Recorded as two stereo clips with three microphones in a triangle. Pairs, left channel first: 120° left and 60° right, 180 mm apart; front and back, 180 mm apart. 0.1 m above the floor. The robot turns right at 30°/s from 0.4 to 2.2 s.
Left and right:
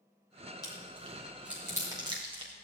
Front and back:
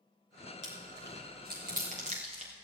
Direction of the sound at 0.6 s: 170° right.